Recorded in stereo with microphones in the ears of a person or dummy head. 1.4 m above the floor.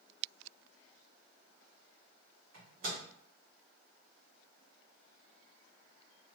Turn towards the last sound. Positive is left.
turn(degrees=-55)  # may be behind; listen again after turning